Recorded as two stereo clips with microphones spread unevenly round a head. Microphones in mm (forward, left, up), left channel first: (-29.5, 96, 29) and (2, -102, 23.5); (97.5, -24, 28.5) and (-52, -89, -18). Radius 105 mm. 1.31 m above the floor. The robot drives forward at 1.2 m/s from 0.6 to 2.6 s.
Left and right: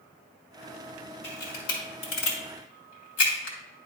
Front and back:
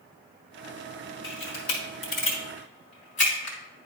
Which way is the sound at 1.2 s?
55° left.